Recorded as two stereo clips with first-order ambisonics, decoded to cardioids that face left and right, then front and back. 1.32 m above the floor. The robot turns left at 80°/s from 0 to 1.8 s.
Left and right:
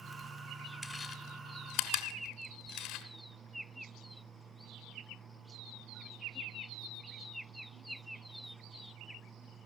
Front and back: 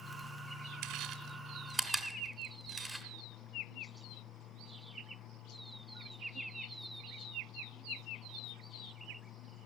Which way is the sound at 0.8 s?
175° left.